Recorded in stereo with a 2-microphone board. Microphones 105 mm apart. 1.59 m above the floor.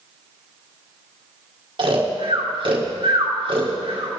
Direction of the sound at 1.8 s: 50° right (ahead or behind).